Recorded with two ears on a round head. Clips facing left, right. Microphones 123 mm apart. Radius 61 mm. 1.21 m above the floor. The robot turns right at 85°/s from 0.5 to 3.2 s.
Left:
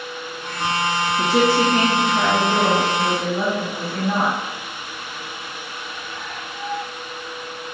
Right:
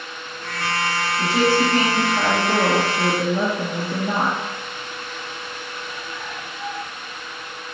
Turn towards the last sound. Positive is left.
turn(degrees=-85)